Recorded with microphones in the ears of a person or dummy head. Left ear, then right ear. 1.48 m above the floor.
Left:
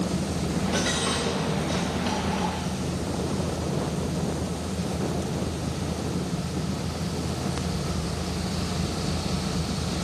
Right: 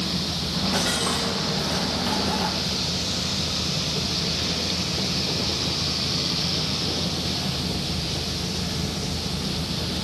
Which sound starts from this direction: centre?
A dropped coin, at 0.5 s.